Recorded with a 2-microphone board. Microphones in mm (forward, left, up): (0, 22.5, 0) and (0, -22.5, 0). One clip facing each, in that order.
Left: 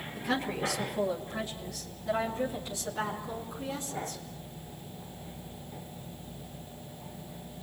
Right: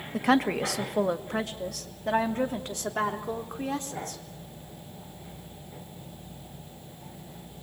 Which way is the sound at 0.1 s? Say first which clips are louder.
Right 8 dB; 70° right (ahead or behind).